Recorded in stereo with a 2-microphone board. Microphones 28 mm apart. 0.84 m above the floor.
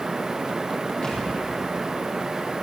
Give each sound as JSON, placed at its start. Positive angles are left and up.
{"t": 1.0, "sound": "a thud", "side_deg": 35, "distance_m": 8.0}